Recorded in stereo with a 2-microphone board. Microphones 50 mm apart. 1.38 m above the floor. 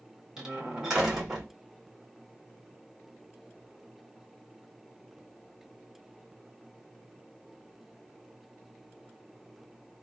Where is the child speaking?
No child speaking in this recording.